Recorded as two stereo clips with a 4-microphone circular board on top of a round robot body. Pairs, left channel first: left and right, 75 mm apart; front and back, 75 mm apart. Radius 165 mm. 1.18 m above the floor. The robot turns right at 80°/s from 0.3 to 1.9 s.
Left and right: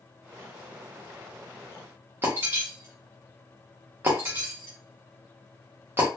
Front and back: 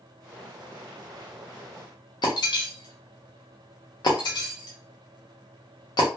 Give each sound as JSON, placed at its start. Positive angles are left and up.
{"t": 2.2, "sound": "breaking glass", "azimuth_deg": -25, "distance_m": 0.5}